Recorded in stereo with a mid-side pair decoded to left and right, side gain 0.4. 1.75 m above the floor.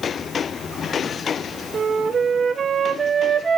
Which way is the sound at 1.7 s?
50° right.